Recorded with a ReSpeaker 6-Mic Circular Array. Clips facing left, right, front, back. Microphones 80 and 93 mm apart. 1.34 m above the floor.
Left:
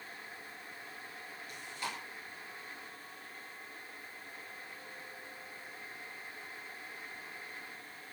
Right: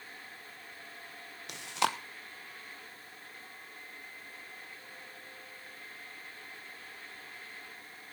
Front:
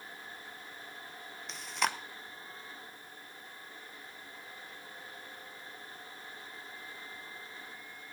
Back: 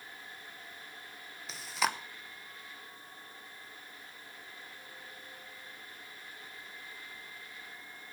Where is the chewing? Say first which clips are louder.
Right 11 dB, back 1 dB; 90° right, 1.0 m.